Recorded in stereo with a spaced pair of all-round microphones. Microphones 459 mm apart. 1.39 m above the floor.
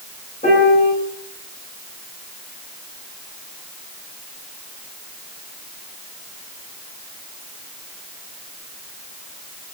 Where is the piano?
20° left (ahead or behind), 7.5 m.